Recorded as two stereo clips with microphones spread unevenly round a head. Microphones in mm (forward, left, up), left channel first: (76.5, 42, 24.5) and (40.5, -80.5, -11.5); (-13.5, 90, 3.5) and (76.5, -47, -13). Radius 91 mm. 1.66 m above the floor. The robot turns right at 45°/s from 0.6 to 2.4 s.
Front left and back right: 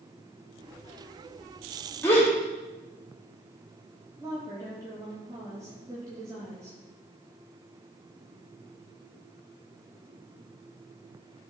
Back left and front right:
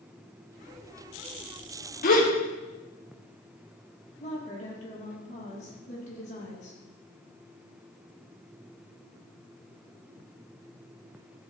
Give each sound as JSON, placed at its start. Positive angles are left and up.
{"t": 2.0, "sound": "a gasp", "azimuth_deg": 135, "distance_m": 1.6}
{"t": 4.2, "sound": "a woman speaking", "azimuth_deg": 180, "distance_m": 3.0}